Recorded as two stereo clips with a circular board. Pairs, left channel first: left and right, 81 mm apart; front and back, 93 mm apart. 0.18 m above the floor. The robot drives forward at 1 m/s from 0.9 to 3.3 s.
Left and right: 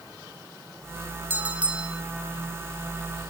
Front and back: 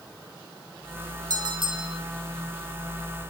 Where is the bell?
150° right, 0.6 m; by 2.0 s 170° right, 1.2 m.